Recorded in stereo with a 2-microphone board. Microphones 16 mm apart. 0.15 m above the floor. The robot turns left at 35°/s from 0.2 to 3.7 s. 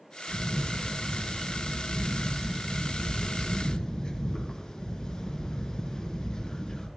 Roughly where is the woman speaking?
No woman speaking in this recording.